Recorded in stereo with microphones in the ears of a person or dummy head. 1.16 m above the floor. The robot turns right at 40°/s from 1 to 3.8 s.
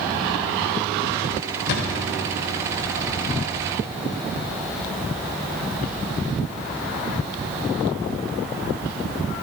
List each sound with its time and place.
1.7 s a thud: 60° left (ahead or behind), 1.5 m